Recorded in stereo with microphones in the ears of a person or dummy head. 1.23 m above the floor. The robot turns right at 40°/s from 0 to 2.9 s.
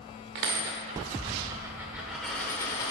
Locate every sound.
0.3 s a dropped coin: 75° right, 1.2 m; by 2.9 s 30° left, 1.2 m